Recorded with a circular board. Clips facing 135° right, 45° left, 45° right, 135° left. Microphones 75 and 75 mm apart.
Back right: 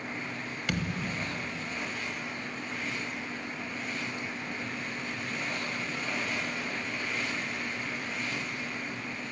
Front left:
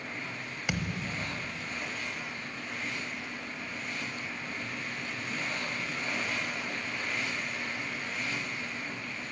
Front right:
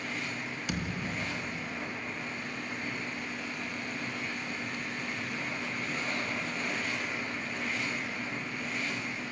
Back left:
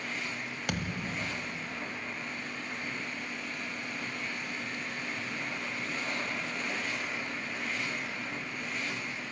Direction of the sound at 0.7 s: 120° left.